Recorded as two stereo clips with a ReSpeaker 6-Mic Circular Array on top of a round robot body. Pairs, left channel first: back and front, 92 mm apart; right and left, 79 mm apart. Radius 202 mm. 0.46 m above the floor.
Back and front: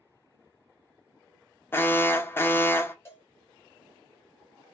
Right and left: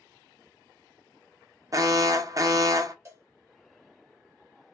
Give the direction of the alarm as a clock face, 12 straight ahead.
8 o'clock.